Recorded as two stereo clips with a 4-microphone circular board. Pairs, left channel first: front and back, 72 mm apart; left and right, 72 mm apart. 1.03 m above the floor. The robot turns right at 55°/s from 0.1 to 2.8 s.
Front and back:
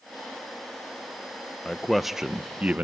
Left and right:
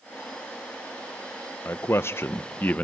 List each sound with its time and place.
1.6 s a man speaking: 75° left, 0.7 m; by 2.9 s 140° left, 0.7 m